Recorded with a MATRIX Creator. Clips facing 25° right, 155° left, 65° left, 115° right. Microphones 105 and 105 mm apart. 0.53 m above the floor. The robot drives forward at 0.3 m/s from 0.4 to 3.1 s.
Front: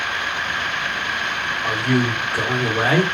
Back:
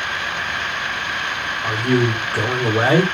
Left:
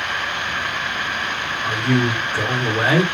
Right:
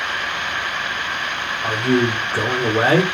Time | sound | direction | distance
1.6 | a man speaking | 145° right | 1.2 m